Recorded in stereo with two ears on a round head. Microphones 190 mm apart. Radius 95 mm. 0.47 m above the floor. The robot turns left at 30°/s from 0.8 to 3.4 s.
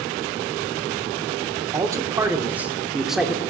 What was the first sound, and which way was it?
A man speaking, 20° right (ahead or behind).